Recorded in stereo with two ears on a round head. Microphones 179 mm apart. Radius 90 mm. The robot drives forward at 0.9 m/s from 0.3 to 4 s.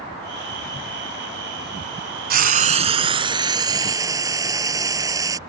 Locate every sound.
2.3 s frying: 50° right (ahead or behind); by 5.4 s 20° right (ahead or behind)